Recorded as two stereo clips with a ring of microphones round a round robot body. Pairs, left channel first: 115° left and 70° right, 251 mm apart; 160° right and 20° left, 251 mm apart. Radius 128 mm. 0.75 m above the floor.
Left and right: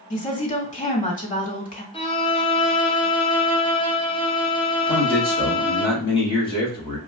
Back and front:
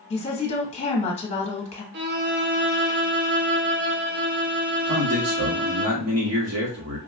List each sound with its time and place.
0.1 s a woman speaking: 150° left, 1.3 m
1.9 s a violin: 50° left, 0.8 m
4.9 s a man speaking: 45° left, 1.6 m